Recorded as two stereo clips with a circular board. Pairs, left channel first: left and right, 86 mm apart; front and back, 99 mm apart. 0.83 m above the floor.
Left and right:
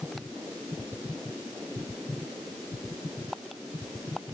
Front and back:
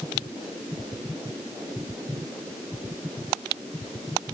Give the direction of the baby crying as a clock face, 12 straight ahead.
I don't hear a baby crying.